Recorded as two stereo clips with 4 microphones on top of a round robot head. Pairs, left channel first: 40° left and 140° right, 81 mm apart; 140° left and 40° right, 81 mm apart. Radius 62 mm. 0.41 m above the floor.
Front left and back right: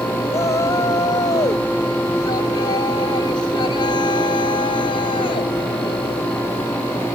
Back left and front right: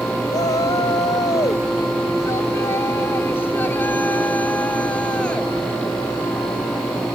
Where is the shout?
100° left; by 5.5 s 65° left.